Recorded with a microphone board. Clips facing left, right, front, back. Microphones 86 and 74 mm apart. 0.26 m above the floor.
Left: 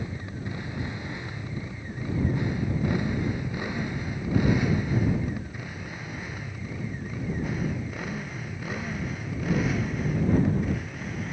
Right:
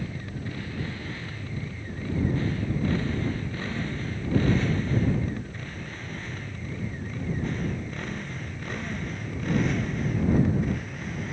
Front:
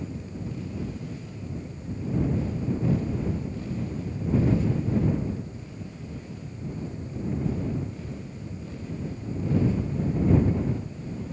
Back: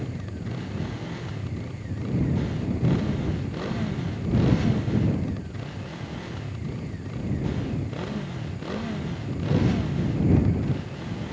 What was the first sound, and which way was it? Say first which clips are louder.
A motorcycle: even, back 1 dB; 160° left.